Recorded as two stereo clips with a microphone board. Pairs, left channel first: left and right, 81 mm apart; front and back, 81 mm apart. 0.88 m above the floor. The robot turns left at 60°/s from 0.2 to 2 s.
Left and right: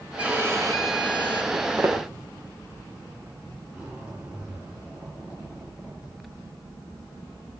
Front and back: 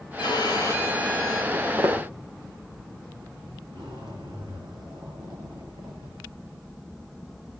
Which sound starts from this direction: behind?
A zipper, at 3.7 s.